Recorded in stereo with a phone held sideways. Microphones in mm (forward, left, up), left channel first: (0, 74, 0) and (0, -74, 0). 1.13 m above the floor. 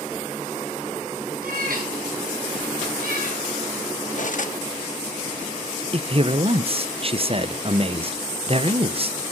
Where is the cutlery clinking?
60° left (ahead or behind), 0.9 m.